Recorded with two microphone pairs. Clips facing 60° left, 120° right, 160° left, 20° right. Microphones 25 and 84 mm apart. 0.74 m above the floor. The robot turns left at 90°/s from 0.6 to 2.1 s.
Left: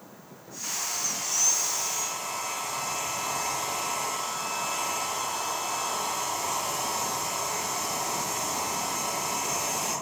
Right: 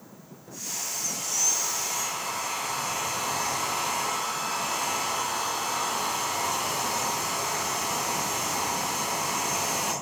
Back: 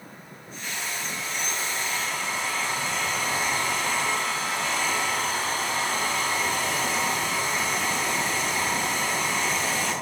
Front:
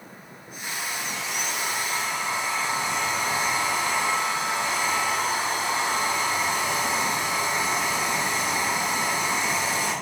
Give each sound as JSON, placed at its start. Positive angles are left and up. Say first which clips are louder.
{"t": 0.6, "sound": "a hair dryer", "louder": "left 1 dB, front 1 dB", "azimuth_deg": 40, "distance_m": 5.0}